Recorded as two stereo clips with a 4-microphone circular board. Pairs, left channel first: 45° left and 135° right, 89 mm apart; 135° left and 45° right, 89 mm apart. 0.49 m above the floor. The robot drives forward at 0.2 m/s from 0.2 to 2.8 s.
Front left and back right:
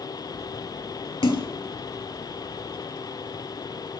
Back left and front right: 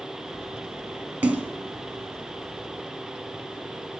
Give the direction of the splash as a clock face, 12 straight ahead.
11 o'clock.